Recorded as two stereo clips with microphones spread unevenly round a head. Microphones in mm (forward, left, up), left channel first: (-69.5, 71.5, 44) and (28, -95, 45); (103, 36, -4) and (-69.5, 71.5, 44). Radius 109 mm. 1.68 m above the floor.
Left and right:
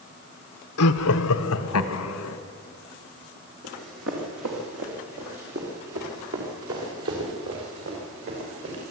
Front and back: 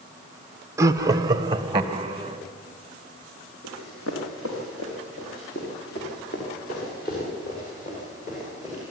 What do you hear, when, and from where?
0.8 s laughter: 100° left, 0.9 m; by 2.4 s 110° left, 1.9 m
3.6 s running footsteps: 40° right, 5 m; by 8.9 s 80° right, 7.5 m